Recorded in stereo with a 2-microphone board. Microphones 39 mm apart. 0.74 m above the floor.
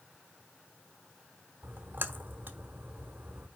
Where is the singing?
No singing in this recording.